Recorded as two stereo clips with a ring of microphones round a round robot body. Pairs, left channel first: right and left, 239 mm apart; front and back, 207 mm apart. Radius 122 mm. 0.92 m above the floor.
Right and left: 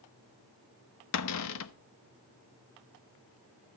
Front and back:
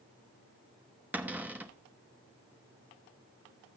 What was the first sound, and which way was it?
A cupboard door, 100° right.